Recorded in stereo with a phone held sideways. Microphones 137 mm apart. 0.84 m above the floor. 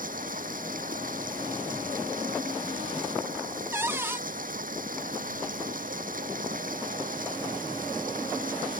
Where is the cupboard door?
15° right (ahead or behind).